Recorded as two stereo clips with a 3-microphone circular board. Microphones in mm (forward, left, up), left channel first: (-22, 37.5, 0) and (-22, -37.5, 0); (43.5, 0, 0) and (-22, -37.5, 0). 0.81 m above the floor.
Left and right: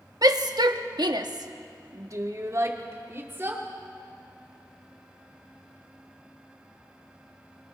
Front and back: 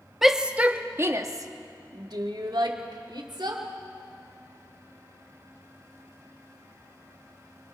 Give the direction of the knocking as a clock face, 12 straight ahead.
I don't hear knocking.